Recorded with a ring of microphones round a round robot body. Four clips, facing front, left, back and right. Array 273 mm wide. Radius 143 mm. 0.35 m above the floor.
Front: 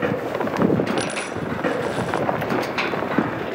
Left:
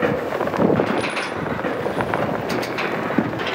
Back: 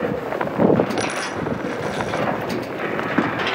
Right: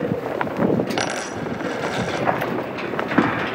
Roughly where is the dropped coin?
Right.